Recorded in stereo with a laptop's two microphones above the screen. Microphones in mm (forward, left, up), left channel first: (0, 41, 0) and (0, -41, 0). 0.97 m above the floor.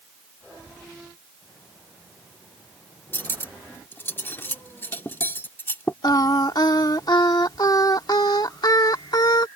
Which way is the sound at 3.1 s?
25° left (ahead or behind).